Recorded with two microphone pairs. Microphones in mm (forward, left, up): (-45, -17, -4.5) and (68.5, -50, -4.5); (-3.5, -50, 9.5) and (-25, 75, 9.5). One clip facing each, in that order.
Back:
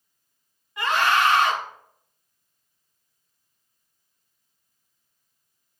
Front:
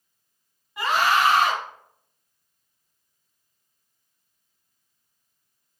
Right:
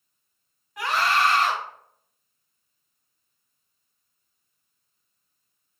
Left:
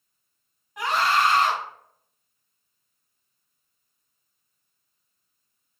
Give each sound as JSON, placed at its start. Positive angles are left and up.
{"t": 0.8, "sound": "a scream", "azimuth_deg": 55, "distance_m": 1.8}